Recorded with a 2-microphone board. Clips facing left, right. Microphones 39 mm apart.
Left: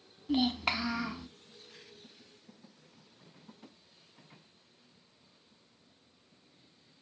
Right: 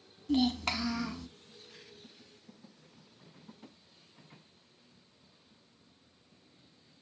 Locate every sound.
0.3 s a child speaking: 15° left (ahead or behind), 0.6 m